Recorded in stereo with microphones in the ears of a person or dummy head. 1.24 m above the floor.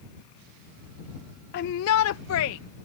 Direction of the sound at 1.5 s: 50° left (ahead or behind).